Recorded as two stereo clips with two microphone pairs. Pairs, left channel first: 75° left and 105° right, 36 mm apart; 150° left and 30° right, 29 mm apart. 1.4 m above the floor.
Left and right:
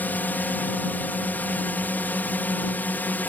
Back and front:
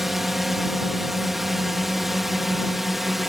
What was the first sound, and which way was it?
A drone, 50° left.